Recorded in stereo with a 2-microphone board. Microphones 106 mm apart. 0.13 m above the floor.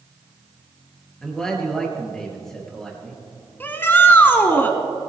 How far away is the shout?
About 1.0 m.